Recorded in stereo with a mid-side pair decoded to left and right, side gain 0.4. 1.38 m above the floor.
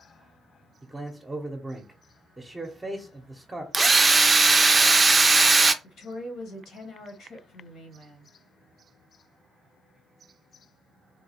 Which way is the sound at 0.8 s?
15° right.